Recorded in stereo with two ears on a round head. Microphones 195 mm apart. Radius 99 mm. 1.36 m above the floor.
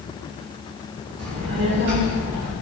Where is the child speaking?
85° right, 4.5 m; by 2.5 s 80° right, 3.5 m.